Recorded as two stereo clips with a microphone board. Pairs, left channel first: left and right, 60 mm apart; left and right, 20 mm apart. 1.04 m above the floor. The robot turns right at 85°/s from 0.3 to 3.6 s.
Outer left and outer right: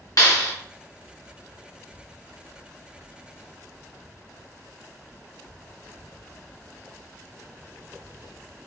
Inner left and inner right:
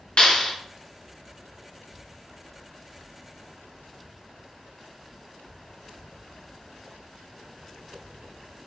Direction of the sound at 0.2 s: 70° left (ahead or behind).